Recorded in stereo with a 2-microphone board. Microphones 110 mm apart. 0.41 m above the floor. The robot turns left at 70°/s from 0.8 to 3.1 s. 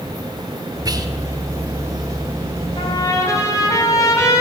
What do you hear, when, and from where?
0.8 s whispering: 30° right (ahead or behind), 0.8 m; by 1.1 s 35° right (ahead or behind), 0.8 m
2.8 s a trumpet: 50° left (ahead or behind), 2 m; by 4.4 s 25° left (ahead or behind), 2 m